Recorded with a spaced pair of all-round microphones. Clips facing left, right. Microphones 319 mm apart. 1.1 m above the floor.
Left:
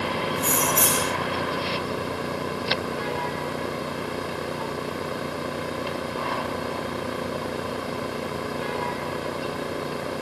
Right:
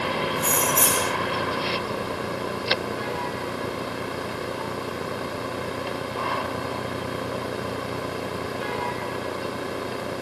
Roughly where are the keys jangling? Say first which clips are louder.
Even; left.